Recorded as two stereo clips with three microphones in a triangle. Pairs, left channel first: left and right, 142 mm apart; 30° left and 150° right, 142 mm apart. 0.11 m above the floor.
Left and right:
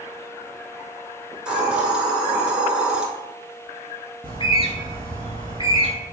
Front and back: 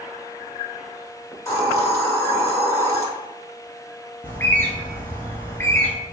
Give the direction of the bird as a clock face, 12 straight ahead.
9 o'clock.